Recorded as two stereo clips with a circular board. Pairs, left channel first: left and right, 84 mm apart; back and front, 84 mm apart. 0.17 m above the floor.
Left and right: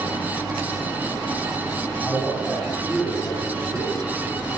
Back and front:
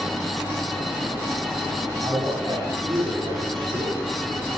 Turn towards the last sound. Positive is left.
turn(degrees=30)